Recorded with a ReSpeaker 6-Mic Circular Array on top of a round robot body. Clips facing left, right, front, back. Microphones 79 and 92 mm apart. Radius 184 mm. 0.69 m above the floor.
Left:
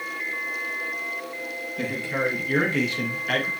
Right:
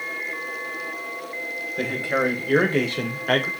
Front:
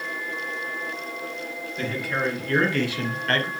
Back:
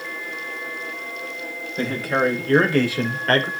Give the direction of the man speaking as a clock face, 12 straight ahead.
4 o'clock.